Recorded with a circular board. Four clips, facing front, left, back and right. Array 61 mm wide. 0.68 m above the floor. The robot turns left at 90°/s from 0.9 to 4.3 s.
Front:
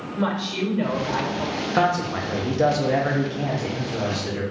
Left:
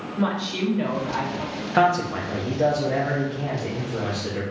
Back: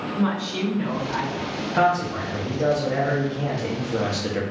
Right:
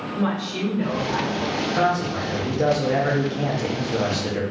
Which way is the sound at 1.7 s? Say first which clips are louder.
Left 4 dB, back 1 dB; 70° left.